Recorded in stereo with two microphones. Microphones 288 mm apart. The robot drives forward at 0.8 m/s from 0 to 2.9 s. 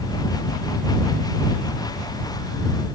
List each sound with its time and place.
Only background noise.